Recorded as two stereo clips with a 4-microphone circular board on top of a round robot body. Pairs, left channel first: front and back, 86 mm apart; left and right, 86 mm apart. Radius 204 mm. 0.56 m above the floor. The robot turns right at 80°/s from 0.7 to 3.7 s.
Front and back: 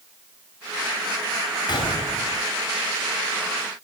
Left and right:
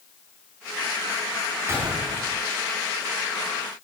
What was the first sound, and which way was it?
A gunshot, 30° right.